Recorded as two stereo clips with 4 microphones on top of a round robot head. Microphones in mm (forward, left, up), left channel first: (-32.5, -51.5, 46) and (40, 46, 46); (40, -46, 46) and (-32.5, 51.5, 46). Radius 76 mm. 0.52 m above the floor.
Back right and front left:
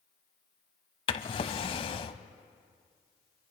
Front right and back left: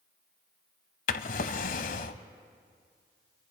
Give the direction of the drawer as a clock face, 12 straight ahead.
3 o'clock.